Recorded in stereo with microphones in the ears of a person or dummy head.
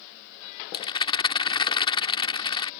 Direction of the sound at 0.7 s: 25° left (ahead or behind).